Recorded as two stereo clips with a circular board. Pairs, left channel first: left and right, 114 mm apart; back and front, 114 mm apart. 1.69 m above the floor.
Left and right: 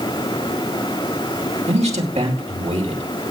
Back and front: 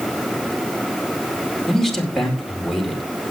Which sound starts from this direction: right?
A man speaking, at 1.7 s.